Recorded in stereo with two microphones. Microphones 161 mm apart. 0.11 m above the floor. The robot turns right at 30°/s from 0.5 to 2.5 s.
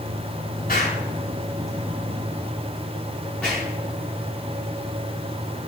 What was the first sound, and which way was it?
An explosion, 60° left (ahead or behind).